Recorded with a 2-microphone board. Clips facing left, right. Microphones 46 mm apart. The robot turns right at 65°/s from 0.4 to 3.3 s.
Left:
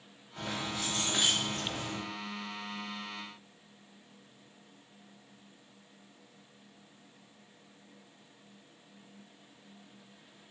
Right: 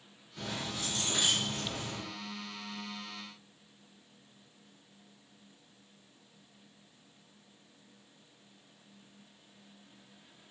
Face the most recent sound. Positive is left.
turn(degrees=-115)